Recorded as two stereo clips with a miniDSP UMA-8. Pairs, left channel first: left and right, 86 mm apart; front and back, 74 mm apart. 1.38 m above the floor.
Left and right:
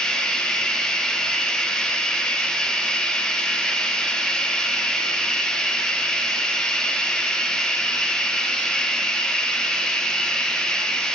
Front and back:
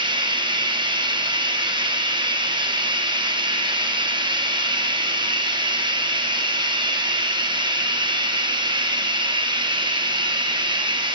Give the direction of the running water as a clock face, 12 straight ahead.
6 o'clock.